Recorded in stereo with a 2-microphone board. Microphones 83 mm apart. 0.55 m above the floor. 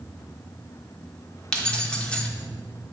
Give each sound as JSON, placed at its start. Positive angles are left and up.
{"t": 1.5, "sound": "keys jangling", "side_deg": 10, "distance_m": 1.0}